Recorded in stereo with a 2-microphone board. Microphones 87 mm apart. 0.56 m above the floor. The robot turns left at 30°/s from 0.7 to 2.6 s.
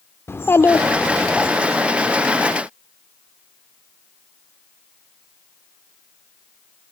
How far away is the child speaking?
About 0.7 m.